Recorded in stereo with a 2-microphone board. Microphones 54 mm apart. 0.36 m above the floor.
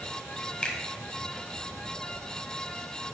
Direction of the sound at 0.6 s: 20° left (ahead or behind).